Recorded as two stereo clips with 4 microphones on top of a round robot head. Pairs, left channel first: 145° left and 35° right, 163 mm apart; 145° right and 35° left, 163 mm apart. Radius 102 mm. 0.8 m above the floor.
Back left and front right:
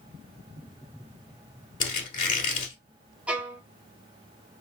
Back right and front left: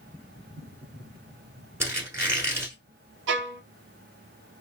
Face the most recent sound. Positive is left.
turn(degrees=50)